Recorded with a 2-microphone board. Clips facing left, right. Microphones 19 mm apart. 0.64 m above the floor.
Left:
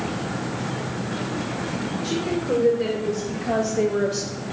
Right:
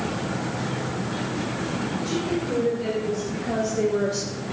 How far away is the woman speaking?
About 3.5 m.